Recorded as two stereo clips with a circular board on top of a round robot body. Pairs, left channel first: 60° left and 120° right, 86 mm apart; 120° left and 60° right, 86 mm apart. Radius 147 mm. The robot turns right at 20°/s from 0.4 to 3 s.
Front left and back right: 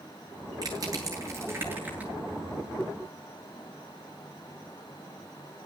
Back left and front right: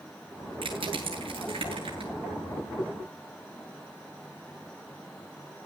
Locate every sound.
0.6 s crushing: 75° right, 9.5 m; by 2.1 s 45° right, 9.5 m